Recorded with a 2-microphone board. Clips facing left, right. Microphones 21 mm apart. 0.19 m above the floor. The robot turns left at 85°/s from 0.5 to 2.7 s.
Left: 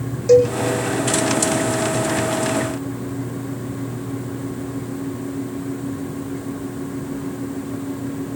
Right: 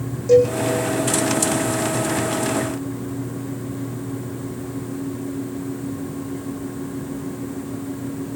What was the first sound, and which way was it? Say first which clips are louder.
A cowbell: left 1 dB; 40° left (ahead or behind).